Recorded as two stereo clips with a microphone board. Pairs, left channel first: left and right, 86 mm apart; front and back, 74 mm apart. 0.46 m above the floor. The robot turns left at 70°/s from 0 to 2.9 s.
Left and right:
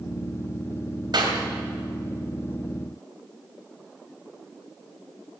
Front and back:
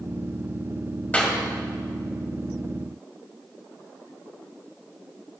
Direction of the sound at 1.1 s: 70° right.